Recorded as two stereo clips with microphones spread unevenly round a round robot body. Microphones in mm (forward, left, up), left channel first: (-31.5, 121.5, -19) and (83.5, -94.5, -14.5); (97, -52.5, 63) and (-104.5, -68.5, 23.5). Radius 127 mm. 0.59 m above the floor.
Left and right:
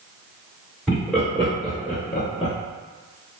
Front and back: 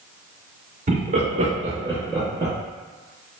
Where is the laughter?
155° right, 1.3 m; by 2.5 s 155° left, 0.9 m.